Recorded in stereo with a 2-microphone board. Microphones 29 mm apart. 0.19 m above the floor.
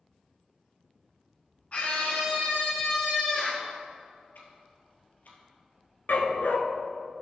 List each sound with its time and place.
1.7 s a scream: 45° left (ahead or behind), 1.6 m
4.3 s ticking: 70° left (ahead or behind), 2.5 m
6.1 s a dog barking: 70° left (ahead or behind), 1.1 m